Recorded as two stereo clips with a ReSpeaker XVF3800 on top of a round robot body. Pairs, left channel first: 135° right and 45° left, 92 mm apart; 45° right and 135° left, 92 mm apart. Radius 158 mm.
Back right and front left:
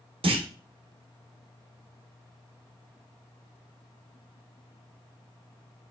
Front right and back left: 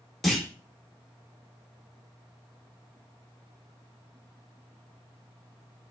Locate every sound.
0.2 s a clunk: 45° left, 0.7 m